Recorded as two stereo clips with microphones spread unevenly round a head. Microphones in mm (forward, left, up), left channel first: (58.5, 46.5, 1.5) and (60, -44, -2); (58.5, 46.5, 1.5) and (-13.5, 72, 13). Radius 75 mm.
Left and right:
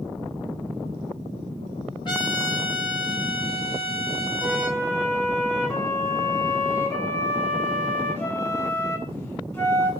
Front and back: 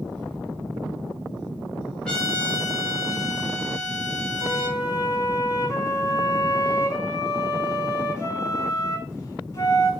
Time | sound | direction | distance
2.0 | a trumpet | 65° left | 3.5 m
4.4 | a flute | 35° left | 4.5 m